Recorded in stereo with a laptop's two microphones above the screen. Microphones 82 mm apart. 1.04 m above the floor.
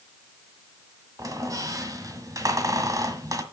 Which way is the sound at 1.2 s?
45° right (ahead or behind).